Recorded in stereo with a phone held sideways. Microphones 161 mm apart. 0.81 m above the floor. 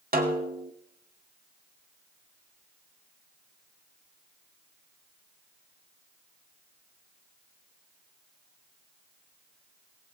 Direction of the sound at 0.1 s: 65° right (ahead or behind).